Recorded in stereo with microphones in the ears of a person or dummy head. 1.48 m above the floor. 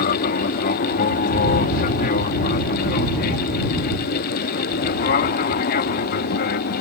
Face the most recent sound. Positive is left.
turn(degrees=50)  # may be behind; listen again after turning